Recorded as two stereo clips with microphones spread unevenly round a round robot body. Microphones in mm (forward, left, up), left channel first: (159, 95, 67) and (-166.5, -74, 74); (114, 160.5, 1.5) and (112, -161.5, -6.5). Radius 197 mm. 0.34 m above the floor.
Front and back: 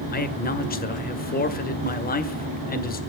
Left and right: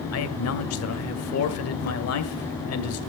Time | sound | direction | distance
0.1 | a man speaking | 80° left | 1.8 m